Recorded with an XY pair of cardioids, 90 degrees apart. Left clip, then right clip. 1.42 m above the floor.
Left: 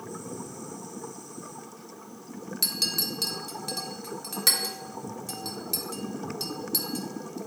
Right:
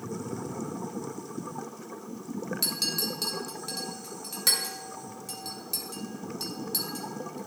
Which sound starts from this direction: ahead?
A clink, at 2.6 s.